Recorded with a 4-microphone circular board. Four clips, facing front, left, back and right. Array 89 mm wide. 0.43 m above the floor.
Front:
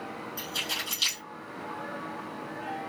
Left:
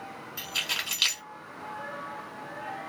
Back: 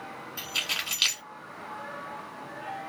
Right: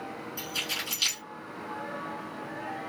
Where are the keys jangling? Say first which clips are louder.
Even, front 1 dB; 135° left, 1.6 m.